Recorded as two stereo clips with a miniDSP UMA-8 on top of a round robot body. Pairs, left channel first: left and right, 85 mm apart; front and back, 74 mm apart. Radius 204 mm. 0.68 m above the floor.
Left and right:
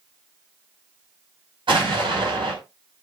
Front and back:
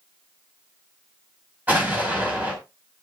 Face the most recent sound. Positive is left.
turn(degrees=-110)